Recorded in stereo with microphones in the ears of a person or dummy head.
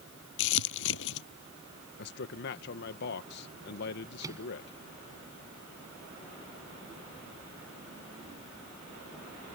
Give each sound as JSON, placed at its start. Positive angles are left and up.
{"t": 0.4, "sound": "crumpling", "side_deg": 75}
{"t": 2.0, "sound": "a man speaking", "side_deg": 55}
{"t": 4.2, "sound": "a microwave", "side_deg": -20}